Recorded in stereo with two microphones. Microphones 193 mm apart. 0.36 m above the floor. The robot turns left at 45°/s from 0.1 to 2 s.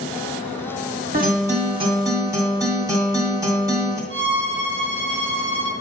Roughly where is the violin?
Right.